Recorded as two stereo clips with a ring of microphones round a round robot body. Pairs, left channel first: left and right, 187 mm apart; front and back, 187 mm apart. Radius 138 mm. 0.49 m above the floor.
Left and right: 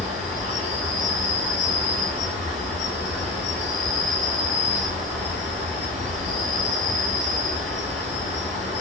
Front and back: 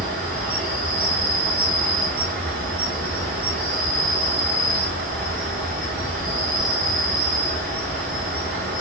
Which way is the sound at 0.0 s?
165° left.